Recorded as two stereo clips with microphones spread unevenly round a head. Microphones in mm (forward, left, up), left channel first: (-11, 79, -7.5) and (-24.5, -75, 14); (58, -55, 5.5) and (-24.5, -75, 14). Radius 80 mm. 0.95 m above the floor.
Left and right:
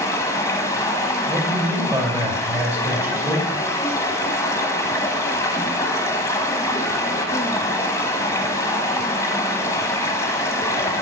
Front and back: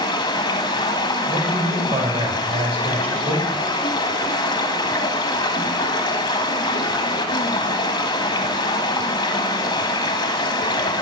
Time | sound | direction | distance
0.0 | running water | 10° left | 1.1 m
1.3 | a man speaking | 170° right | 3.5 m